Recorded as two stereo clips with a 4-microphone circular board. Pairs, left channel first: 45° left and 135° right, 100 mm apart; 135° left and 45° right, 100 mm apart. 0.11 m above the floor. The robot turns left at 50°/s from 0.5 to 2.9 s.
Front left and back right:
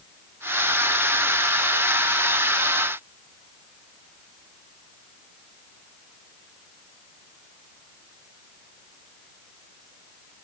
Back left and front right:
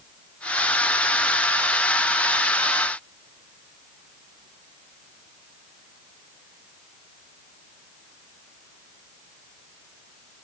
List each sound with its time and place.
Only background noise.